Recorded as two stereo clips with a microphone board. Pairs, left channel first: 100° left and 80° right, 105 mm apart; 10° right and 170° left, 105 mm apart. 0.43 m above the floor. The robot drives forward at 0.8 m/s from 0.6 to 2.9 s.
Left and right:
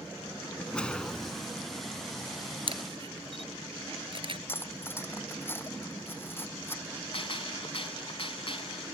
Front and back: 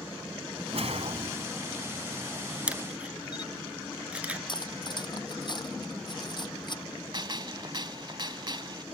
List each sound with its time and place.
0.7 s a whoosh: straight behind
2.7 s a camera shutter: 110° right; by 4.4 s 115° right
4.5 s cutlery clinking: 30° left
7.1 s a gunshot: 125° left